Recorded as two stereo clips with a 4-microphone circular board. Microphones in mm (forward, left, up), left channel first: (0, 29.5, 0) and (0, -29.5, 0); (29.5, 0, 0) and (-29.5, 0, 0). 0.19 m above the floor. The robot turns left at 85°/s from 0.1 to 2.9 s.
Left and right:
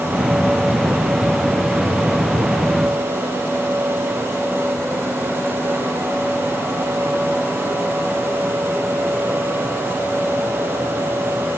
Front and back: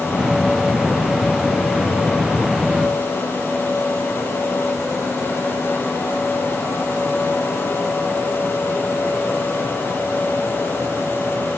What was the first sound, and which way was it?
Only background noise.